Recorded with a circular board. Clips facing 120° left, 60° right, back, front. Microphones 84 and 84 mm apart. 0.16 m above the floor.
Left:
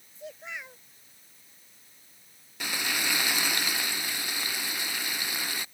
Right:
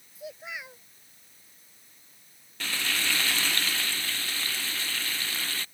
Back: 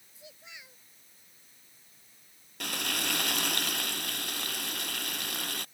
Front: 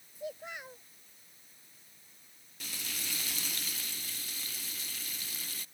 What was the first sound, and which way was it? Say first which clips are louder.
A child speaking: right 1 dB, front 11 dB; 25° left.